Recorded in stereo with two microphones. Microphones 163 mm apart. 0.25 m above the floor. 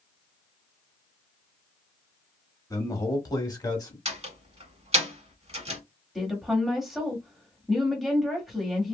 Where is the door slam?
40° right (ahead or behind), 1.5 m.